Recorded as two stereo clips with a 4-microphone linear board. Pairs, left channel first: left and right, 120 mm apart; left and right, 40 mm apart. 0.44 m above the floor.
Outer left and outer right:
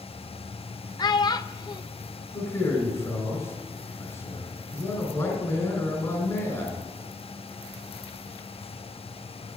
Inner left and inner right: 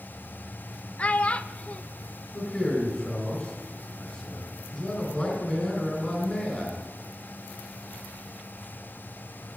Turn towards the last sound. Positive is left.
turn(degrees=25)  # may be behind; listen again after turning